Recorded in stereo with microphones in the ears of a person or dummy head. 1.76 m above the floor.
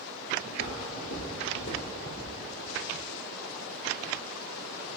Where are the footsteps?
30° left (ahead or behind), 2 m.